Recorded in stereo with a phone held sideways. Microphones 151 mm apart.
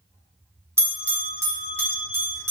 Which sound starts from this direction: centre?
A bell, at 0.8 s.